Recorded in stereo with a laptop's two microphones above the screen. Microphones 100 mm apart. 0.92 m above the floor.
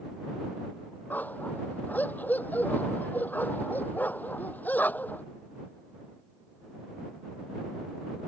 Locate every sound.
1.1 s a dog barking: 15° left (ahead or behind)